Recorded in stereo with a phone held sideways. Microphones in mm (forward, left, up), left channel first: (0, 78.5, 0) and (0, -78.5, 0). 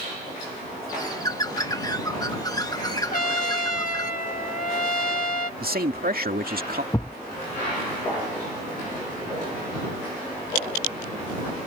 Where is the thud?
20° left (ahead or behind).